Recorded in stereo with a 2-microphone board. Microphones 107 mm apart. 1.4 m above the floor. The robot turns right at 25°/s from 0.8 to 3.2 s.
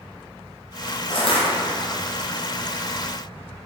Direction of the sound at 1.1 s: 60° left (ahead or behind).